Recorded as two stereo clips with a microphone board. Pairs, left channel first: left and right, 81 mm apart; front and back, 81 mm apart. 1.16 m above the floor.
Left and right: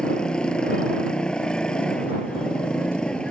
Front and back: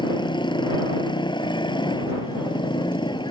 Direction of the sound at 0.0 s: 10° left.